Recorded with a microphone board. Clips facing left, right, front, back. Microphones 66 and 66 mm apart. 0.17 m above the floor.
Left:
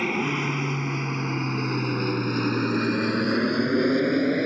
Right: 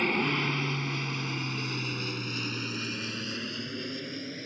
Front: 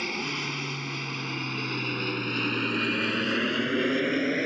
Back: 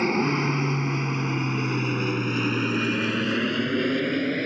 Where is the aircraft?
170° left; by 4.5 s 80° left.